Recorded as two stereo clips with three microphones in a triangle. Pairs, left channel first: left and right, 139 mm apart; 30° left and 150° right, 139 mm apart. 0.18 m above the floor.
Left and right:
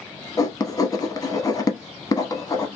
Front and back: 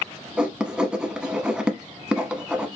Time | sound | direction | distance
0.4 | writing | 130° left | 0.8 m